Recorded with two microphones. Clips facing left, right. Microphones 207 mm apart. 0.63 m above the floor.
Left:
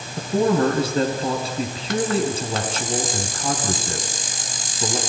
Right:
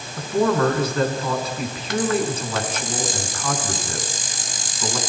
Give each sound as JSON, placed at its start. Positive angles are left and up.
{"t": 0.2, "sound": "a man speaking", "side_deg": 30, "distance_m": 6.5}